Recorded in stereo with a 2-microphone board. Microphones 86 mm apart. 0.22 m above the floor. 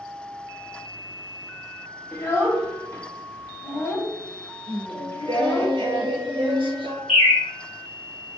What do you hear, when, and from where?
2.1 s a child speaking: 25° left (ahead or behind), 0.6 m
4.7 s singing: 85° right, 0.7 m
7.1 s a bird: 5° right (ahead or behind), 1.7 m